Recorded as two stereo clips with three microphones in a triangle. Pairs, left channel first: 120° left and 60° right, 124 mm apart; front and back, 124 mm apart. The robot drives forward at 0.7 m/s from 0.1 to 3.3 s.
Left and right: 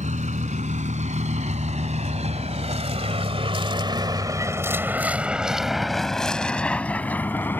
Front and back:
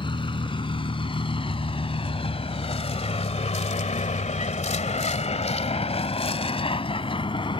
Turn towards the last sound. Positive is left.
turn(degrees=45)